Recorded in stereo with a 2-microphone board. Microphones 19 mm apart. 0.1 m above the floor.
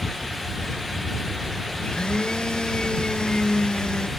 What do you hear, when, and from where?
1.8 s a blender: 55° left (ahead or behind)